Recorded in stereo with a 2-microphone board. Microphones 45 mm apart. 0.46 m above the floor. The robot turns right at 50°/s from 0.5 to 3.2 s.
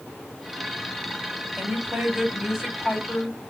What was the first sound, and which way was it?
A woman speaking, 50° right.